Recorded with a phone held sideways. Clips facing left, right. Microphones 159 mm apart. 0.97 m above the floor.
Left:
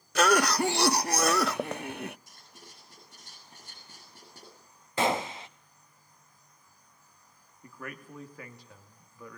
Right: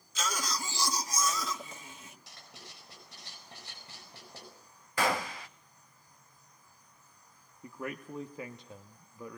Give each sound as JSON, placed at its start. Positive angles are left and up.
{"t": 0.1, "sound": "a cough", "side_deg": 60, "distance_m": 0.6}
{"t": 2.3, "sound": "writing", "side_deg": -65, "distance_m": 7.0}
{"t": 5.0, "sound": "a gunshot", "side_deg": 20, "distance_m": 0.8}
{"t": 7.6, "sound": "a man speaking", "side_deg": -20, "distance_m": 1.5}